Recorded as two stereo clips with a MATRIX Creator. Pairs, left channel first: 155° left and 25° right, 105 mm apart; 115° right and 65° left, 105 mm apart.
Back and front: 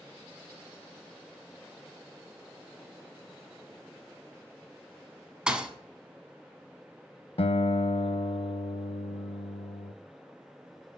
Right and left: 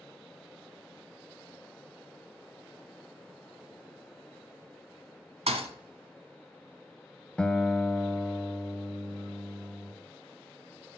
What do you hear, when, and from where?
5.5 s a thud: 60° left, 1.0 m
7.4 s a guitar: 165° left, 0.5 m